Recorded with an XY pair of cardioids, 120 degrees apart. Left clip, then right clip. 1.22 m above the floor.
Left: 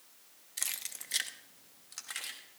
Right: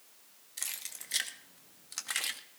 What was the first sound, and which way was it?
Keys jangling, 20° left.